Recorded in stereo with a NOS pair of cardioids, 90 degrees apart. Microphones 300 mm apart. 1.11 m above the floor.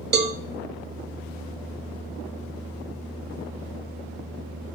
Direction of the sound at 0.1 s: 35° right.